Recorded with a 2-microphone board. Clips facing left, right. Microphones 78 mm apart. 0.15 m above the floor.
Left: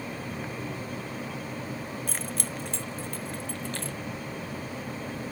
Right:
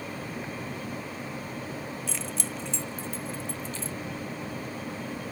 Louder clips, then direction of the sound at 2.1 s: Even; 50° left (ahead or behind).